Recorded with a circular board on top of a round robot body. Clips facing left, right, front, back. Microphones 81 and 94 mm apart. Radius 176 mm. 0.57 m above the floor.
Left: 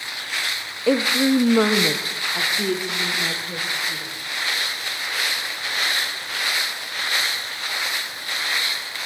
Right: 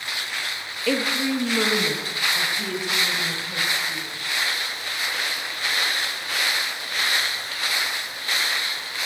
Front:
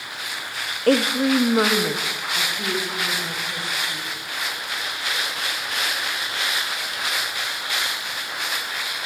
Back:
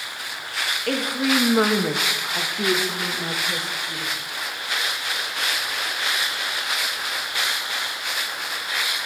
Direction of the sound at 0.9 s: 30° left.